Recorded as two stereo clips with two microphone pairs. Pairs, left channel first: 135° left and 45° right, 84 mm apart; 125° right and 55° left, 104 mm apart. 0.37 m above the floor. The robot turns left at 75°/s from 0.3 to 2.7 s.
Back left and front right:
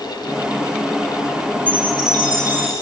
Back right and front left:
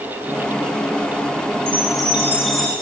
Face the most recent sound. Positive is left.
turn(degrees=-50)